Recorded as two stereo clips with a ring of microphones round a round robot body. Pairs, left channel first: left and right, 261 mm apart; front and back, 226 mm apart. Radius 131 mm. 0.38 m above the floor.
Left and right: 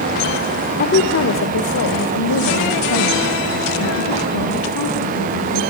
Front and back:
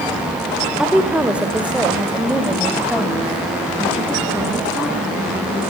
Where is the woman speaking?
95° left, 1.4 m.